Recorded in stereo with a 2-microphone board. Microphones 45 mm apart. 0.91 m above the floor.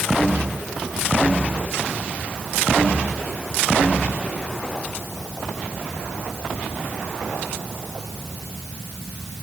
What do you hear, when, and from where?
Only background noise.